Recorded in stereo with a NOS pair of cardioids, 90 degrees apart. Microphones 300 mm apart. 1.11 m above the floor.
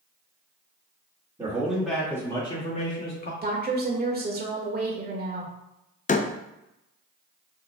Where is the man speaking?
10° right, 2 m; by 3.3 s 35° left, 2 m.